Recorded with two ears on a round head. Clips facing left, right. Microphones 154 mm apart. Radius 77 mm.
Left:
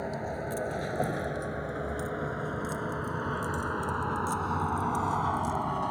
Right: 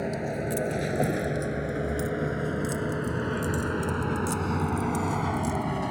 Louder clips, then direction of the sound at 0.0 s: Right 4 dB; 30° right (ahead or behind).